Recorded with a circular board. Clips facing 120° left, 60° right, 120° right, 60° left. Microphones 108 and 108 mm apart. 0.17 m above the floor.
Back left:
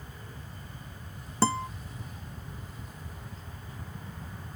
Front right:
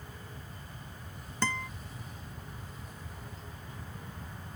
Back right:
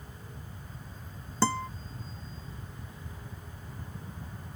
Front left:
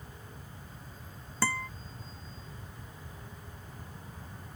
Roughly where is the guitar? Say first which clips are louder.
Back left 7 dB, back right 5 dB; behind.